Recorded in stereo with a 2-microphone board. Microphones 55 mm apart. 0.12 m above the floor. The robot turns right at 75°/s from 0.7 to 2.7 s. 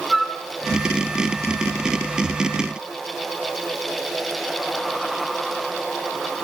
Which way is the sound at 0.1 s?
Centre (ahead or behind).